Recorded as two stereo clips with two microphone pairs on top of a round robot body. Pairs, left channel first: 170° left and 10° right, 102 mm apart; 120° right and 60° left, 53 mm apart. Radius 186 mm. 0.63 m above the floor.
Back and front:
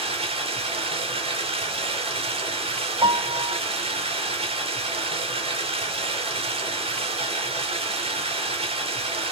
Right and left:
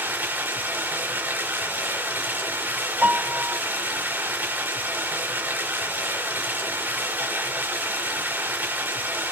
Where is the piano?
Straight ahead, 0.9 m.